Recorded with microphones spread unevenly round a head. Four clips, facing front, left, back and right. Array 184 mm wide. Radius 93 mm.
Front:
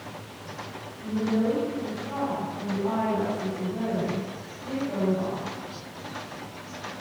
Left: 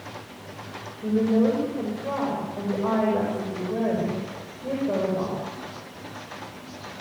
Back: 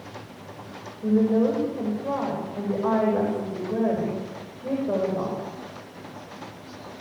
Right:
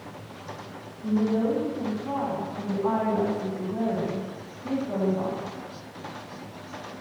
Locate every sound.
1.0 s a woman speaking: 140° left, 8.5 m